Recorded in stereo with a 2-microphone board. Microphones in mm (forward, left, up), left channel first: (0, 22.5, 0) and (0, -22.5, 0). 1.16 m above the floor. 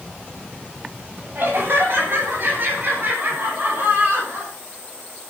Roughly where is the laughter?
Right.